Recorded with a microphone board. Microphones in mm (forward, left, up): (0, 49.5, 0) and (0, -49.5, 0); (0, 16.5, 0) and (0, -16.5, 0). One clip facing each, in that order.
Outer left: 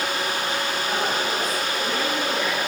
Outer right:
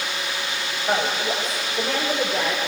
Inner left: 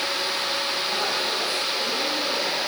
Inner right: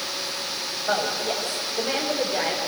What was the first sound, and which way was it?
A woman speaking, 55° right (ahead or behind).